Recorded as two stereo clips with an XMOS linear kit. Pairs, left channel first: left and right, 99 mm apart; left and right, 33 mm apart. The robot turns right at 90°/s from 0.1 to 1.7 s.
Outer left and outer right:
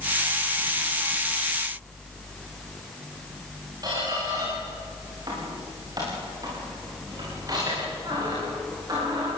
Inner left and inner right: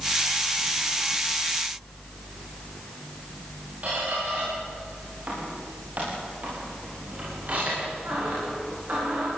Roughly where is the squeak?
Right.